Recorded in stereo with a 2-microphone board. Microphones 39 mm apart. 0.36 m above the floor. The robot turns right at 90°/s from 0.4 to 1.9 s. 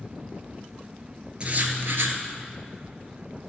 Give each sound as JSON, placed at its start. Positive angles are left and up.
{"t": 1.4, "sound": "writing", "azimuth_deg": -150, "distance_m": 1.4}